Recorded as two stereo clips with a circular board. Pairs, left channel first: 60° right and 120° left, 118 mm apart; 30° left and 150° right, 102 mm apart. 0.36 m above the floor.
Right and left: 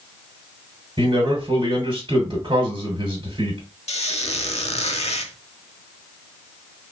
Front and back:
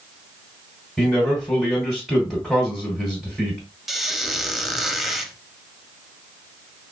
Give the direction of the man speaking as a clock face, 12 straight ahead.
8 o'clock.